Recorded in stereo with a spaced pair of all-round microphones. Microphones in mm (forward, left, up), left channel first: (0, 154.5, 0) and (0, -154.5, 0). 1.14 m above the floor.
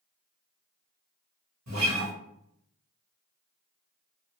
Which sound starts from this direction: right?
A guitar, at 1.7 s.